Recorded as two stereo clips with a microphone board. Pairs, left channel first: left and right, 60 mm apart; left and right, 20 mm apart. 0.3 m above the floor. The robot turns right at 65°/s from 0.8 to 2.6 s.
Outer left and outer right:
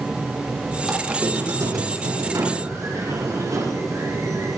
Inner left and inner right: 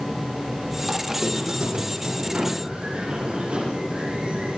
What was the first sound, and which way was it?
A squeak, straight behind.